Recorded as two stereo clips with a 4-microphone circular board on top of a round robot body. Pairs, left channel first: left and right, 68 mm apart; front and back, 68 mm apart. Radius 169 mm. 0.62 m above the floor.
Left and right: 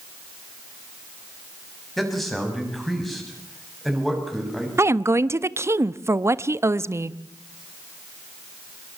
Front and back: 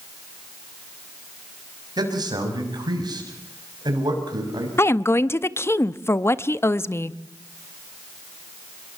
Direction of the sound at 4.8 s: 45° right.